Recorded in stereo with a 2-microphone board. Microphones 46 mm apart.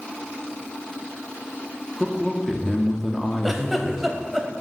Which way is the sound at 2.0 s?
5° left (ahead or behind).